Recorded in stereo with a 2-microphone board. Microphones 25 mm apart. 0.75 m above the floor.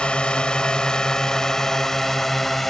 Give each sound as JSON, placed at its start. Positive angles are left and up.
{"t": 0.0, "sound": "a drone", "side_deg": 40}